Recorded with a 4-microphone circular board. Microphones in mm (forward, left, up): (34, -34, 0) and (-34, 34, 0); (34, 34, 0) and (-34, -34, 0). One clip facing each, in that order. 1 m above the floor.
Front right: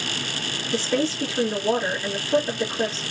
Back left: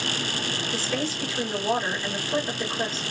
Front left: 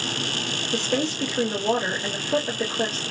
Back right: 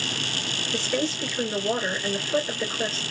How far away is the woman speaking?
About 1.9 m.